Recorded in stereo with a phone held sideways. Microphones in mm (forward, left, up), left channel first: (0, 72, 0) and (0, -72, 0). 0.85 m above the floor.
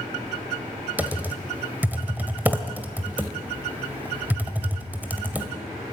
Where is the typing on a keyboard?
10° right (ahead or behind), 1.7 m.